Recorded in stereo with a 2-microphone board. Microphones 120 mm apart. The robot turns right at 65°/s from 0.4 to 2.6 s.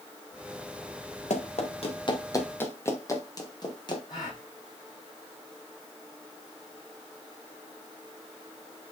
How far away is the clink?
I don't hear a clink.